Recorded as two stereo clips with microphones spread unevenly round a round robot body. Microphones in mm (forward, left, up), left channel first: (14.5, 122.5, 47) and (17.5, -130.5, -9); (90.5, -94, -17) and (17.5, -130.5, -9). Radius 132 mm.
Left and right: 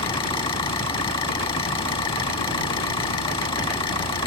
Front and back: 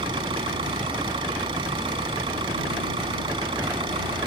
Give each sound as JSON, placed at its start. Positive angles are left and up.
{"t": 0.0, "sound": "an engine running", "azimuth_deg": 165}